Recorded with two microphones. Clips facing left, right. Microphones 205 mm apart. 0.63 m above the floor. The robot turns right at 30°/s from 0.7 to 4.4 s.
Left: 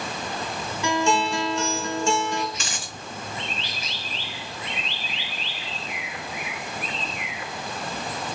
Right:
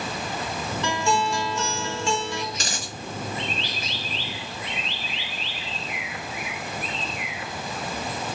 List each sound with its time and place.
0.8 s a guitar: 10° left, 1.1 m; by 2.4 s 60° left, 1.1 m
2.5 s a dropped coin: 35° right (ahead or behind), 0.6 m; by 2.9 s 45° right (ahead or behind), 0.6 m